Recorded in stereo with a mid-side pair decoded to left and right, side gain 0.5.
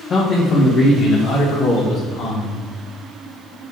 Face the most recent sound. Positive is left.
turn(degrees=70)